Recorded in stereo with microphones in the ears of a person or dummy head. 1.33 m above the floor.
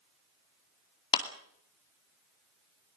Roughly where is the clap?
Left.